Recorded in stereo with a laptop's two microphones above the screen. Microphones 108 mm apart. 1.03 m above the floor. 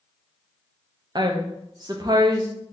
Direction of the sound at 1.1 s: 40° right (ahead or behind).